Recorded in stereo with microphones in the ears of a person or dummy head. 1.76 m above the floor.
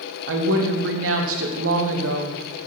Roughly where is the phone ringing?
I don't hear a phone ringing.